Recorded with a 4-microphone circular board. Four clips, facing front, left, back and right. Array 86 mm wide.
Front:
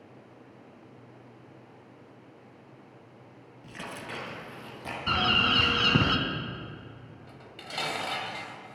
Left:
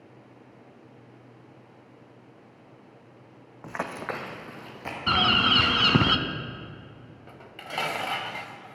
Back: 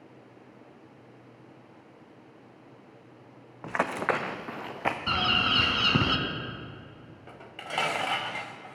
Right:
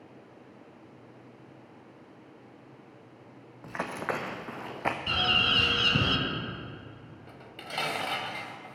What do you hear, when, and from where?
3.6 s running footsteps: 165° left, 0.9 m; by 5.0 s 145° right, 1.6 m
5.1 s a bird: 85° left, 1.0 m
7.3 s dishes clattering: 155° left, 0.9 m